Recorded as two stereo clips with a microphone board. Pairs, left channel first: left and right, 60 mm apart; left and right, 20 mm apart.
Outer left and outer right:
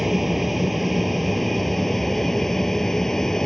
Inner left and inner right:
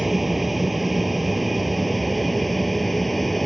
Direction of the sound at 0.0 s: 5° right (ahead or behind).